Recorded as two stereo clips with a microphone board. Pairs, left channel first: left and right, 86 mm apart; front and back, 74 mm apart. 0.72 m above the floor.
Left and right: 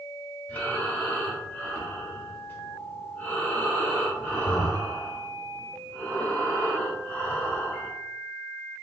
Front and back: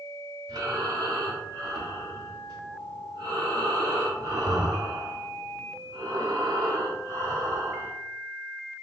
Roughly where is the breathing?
Behind.